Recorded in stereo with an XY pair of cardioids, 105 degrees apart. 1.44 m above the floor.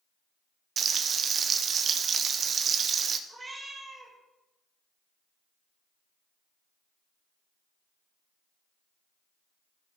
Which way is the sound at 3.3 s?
20° right.